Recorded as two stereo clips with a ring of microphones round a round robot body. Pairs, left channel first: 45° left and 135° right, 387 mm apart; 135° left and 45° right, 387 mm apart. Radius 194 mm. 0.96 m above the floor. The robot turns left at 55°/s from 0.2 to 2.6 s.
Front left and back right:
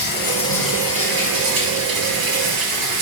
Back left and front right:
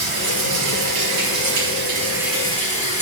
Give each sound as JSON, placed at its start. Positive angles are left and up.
{"t": 0.0, "sound": "running water", "azimuth_deg": -20, "distance_m": 4.5}